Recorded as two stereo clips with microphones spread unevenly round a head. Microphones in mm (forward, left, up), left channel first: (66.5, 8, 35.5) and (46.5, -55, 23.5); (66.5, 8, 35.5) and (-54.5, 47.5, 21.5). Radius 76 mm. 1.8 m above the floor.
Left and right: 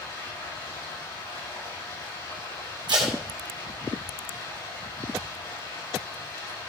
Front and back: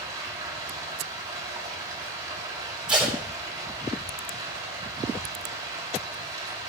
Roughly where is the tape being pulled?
Right.